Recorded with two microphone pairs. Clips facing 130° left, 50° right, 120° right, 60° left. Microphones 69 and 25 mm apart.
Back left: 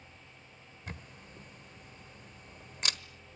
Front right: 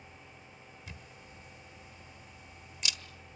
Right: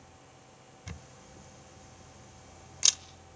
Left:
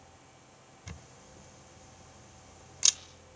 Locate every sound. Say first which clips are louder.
0.9 s a camera shutter: back left 7 dB, right 2 dB; 155° left, 1.3 m